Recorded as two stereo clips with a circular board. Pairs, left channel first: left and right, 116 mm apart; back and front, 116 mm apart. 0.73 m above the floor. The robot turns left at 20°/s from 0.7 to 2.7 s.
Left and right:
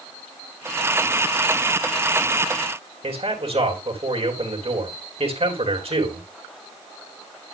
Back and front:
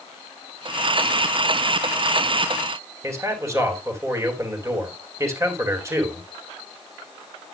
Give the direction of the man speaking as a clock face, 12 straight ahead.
2 o'clock.